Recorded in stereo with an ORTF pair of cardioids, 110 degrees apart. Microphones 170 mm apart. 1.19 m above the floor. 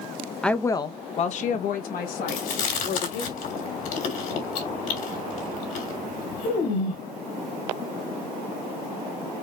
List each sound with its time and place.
0.4 s a woman speaking: 5° left, 0.6 m; by 3.3 s 80° left, 1.9 m
2.3 s chewing: 65° left, 2.5 m